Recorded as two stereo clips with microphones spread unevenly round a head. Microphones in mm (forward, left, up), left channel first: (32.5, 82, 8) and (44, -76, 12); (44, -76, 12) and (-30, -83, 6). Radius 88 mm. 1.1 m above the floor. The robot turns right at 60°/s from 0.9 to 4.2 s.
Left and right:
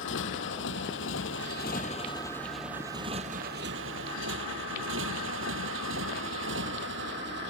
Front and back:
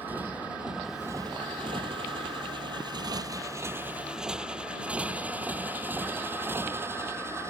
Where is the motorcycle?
105° left; by 7.5 s 120° right.